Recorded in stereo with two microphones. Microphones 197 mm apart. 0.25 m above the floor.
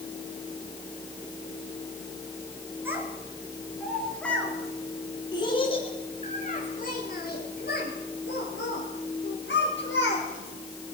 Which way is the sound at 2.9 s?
10° right (ahead or behind).